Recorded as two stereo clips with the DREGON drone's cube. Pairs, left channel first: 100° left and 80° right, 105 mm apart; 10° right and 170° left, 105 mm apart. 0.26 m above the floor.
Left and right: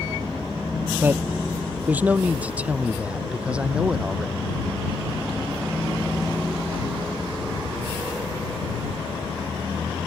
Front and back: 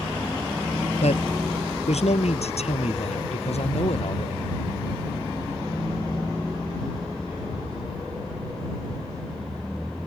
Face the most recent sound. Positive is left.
turn(degrees=0)